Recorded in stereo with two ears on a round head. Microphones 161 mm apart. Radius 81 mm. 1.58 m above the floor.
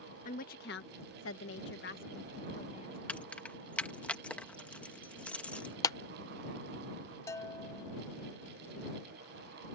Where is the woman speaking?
45° left (ahead or behind); by 3.0 s 35° left (ahead or behind).